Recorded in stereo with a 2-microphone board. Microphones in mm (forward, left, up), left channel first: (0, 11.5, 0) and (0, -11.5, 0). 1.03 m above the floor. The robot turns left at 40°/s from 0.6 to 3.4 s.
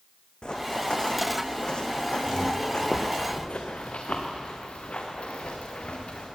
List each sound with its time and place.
0.4 s running footsteps: 40° left (ahead or behind), 2.5 m; by 6.3 s 60° left (ahead or behind), 6.5 m